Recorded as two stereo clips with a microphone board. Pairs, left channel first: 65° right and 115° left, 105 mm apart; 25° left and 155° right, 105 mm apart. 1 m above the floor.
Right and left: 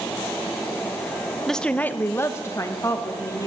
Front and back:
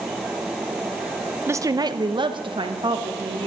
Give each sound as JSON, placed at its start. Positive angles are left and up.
{"t": 1.5, "sound": "a woman speaking", "azimuth_deg": -155, "distance_m": 0.5}